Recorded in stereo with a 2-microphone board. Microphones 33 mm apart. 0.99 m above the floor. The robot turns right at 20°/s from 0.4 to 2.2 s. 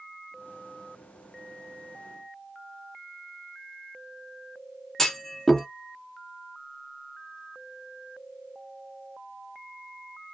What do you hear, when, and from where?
5.0 s a clunk: 10° left (ahead or behind), 0.6 m